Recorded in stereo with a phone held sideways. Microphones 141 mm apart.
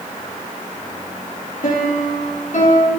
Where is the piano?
75° left (ahead or behind), 4 m.